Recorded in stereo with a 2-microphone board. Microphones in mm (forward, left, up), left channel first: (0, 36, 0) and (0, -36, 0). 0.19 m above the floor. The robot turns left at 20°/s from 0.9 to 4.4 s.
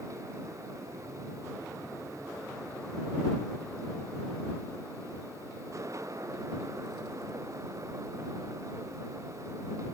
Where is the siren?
I don't hear a siren.